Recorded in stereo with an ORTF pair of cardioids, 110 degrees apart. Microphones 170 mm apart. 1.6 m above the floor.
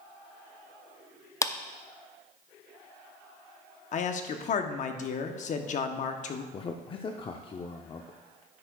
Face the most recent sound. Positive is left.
turn(degrees=30)